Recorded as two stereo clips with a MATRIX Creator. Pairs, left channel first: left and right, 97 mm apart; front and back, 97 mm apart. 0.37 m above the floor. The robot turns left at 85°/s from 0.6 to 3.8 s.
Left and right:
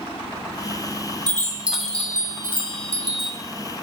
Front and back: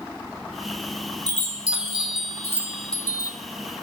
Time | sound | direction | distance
1.3 | a chime | 135° right | 1.6 m